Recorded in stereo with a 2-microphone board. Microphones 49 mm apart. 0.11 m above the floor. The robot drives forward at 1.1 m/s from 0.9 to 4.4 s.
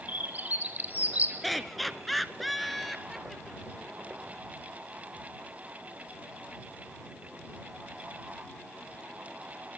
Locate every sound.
0.1 s a bird: 35° right (ahead or behind), 3.5 m; by 1.3 s 30° right (ahead or behind), 3.5 m
1.4 s laughter: centre (ahead or behind), 1.3 m